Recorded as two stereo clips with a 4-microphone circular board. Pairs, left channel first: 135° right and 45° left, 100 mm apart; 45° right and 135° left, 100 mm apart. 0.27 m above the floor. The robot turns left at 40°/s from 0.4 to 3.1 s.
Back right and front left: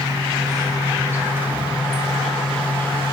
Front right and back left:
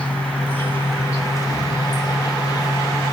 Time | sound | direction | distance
0.0 | an insect | 25° left | 2.5 m